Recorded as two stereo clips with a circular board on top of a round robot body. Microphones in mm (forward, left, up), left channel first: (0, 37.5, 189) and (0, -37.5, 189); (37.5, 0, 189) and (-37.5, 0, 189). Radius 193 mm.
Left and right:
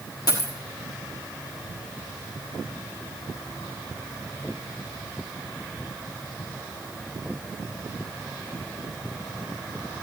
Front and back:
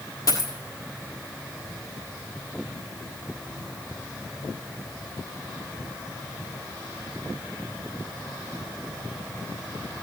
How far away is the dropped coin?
About 1.2 m.